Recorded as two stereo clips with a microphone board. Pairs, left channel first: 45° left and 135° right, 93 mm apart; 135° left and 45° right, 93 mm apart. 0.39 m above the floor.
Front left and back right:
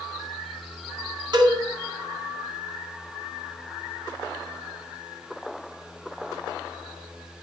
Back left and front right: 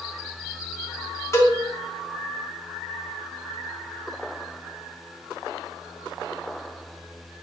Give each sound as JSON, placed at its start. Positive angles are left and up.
{"t": 1.3, "sound": "a cowbell", "azimuth_deg": -170, "distance_m": 4.0}